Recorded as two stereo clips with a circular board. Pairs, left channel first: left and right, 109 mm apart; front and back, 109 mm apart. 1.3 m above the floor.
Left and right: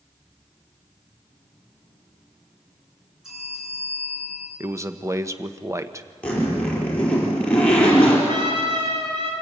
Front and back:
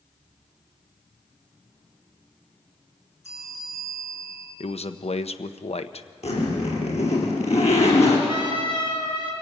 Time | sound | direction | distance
3.2 | a bell | 5° right | 8.5 m
4.6 | a man speaking | 25° right | 0.8 m
6.2 | a zipper | 10° left | 5 m
8.3 | a trumpet | 45° right | 3.5 m